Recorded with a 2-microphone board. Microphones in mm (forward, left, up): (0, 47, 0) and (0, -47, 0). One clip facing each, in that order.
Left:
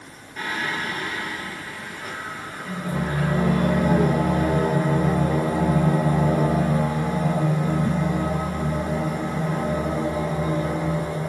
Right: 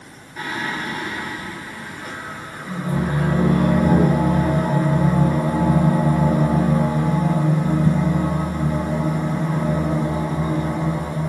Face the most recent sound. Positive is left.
turn(degrees=-5)  # may be behind; listen again after turning